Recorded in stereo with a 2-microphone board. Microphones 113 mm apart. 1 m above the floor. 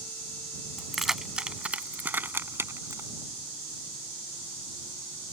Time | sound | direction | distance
0.8 | keys jangling | centre (ahead or behind) | ?